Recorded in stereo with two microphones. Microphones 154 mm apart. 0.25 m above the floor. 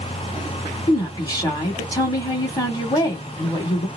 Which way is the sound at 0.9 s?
20° left (ahead or behind).